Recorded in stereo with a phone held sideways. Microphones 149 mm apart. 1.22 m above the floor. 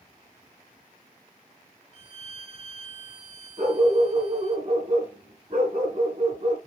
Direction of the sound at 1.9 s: 45° right (ahead or behind).